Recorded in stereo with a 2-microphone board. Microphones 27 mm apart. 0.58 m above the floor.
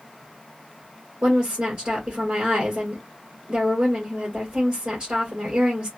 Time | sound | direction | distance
1.2 | a woman speaking | 45° right (ahead or behind) | 2 m